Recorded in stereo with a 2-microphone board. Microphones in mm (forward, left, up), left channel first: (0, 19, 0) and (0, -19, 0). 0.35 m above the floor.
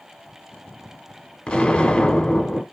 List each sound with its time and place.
1.5 s an explosion: 30° left (ahead or behind), 0.7 m